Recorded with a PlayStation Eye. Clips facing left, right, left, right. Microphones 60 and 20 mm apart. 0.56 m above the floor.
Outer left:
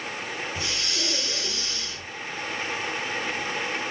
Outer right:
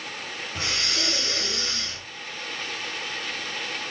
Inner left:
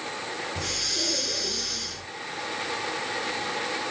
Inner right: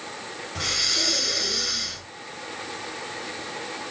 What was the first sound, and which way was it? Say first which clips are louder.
Breathing: outer right 2 dB, inner right 6 dB; 50° right (ahead or behind).